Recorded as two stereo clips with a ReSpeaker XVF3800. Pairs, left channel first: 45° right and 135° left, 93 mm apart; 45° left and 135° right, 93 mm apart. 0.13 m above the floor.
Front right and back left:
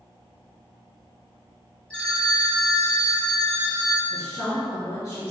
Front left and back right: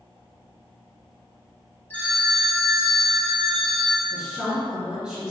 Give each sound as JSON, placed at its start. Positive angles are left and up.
{"t": 1.9, "sound": "a phone ringing", "azimuth_deg": 15, "distance_m": 0.7}
{"t": 4.1, "sound": "a woman speaking", "azimuth_deg": -65, "distance_m": 1.6}